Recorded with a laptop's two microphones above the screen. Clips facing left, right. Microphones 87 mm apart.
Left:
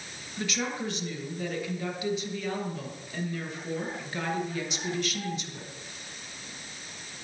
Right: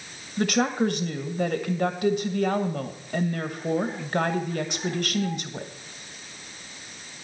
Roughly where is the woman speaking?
Right.